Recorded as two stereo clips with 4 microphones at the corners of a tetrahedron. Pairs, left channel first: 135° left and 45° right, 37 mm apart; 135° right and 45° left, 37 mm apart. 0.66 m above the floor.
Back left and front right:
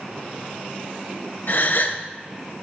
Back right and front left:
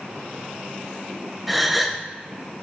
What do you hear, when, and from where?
1.5 s a gasp: 135° left, 0.7 m